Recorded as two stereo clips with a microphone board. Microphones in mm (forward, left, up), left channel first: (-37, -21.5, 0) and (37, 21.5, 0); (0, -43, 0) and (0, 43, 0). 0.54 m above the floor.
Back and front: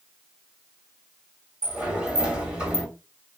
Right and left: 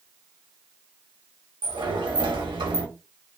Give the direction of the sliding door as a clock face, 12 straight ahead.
8 o'clock.